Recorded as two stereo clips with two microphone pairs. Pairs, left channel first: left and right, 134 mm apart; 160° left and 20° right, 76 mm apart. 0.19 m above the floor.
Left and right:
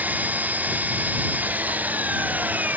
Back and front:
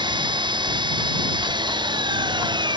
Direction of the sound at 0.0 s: 10° right.